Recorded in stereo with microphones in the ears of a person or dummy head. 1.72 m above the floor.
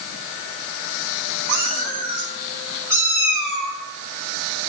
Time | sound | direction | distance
1.5 | a cat meowing | 55° right (ahead or behind) | 3.5 m